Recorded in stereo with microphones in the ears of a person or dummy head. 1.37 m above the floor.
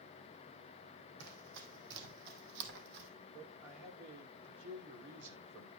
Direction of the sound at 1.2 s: 70° right (ahead or behind).